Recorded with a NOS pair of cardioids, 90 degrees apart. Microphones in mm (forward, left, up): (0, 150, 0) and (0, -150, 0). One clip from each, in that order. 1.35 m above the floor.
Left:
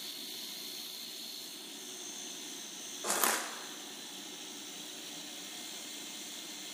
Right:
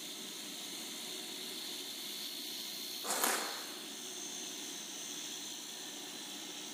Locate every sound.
3.0 s crushing: 35° left, 1.3 m